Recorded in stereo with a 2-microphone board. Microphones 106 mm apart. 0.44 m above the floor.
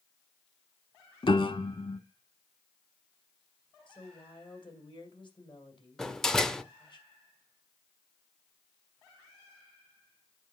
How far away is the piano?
About 0.7 m.